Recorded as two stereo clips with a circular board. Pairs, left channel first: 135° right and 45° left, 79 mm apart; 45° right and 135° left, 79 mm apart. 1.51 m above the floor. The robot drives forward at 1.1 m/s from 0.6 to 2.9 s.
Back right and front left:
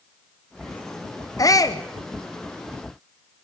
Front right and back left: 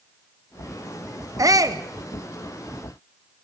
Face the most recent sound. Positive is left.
turn(degrees=180)